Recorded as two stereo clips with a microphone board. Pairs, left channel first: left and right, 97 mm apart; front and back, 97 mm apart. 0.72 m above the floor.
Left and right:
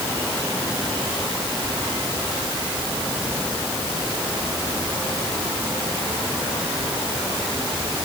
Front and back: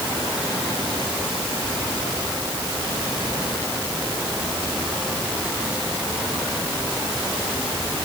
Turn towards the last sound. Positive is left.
No sound to turn to.